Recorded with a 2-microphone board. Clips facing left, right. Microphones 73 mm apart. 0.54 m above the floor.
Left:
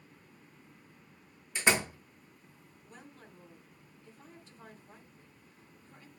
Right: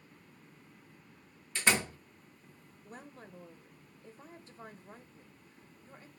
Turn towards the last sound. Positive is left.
turn(degrees=-40)  # may be behind; listen again after turning